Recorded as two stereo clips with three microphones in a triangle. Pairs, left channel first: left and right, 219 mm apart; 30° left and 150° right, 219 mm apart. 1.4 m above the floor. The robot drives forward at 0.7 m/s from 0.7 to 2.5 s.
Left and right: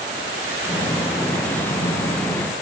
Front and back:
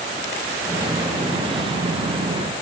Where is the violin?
I don't hear a violin.